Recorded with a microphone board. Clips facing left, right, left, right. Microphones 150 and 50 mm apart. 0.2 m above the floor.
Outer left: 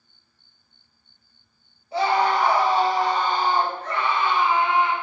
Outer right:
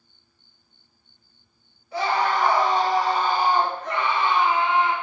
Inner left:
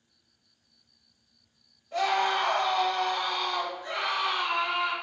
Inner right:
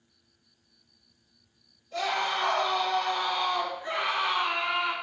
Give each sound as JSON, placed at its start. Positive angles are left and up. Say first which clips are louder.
{"t": 1.9, "sound": "a scream", "louder": "outer left 3 dB, inner left 3 dB", "side_deg": 25, "distance_m": 1.4}